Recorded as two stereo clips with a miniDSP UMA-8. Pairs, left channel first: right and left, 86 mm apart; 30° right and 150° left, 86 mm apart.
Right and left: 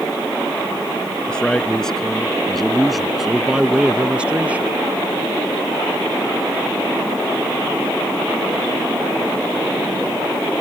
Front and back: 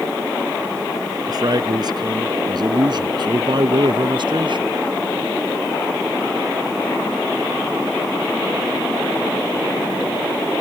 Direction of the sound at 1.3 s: 170° right.